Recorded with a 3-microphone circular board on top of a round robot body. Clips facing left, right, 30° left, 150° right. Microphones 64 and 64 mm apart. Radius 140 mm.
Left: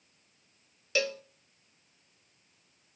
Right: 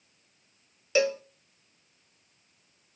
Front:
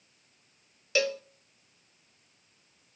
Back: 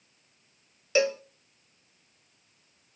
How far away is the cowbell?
About 0.9 m.